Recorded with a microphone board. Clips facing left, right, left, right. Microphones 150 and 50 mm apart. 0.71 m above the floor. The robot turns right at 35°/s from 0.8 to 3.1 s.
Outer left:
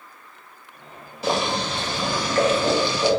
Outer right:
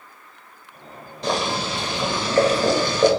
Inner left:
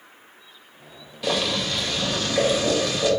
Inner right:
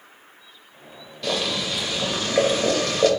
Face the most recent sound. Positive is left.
turn(degrees=-120)